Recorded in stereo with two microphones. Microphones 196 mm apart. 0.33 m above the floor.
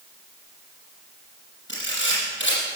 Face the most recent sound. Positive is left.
turn(degrees=70)  # may be behind; listen again after turning